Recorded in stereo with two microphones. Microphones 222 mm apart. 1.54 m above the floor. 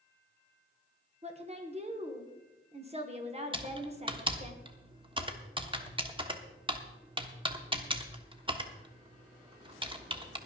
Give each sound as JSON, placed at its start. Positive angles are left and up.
{"t": 1.2, "sound": "a woman speaking", "side_deg": -30, "distance_m": 1.4}
{"t": 3.5, "sound": "typing on a keyboard", "side_deg": -25, "distance_m": 1.1}